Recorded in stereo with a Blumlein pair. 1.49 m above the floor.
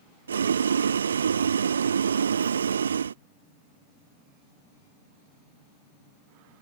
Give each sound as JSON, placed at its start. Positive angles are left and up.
{"t": 0.3, "sound": "boiling", "azimuth_deg": -70}